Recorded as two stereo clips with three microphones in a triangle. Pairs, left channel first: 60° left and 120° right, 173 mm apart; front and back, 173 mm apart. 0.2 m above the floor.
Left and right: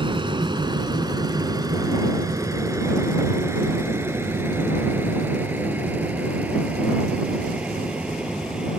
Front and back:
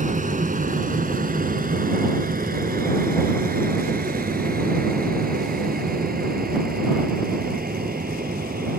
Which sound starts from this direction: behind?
An aircraft, at 0.0 s.